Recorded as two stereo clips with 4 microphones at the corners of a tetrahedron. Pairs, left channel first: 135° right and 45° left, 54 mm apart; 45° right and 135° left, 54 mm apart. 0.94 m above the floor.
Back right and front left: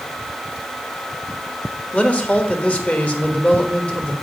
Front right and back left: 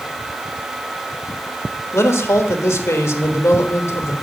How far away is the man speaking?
About 1.2 m.